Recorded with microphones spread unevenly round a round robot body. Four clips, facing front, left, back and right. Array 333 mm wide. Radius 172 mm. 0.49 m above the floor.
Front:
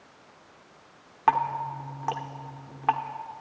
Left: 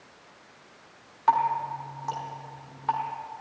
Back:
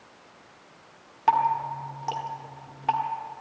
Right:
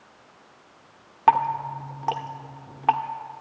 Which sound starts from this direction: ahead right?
Dripping, at 1.3 s.